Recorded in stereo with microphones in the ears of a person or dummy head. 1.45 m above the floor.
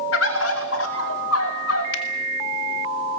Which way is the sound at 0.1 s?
65° left (ahead or behind).